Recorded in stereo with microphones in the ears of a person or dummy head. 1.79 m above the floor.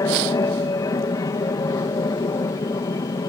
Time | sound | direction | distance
0.0 | an aircraft | 20° left (ahead or behind) | ?